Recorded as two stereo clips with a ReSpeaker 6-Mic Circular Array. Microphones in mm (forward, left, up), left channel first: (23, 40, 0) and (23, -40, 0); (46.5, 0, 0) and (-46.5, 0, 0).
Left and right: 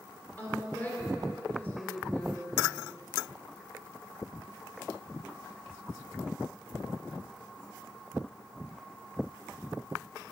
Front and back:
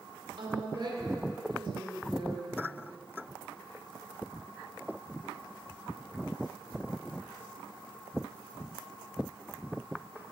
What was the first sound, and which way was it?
A woman speaking, 150° left.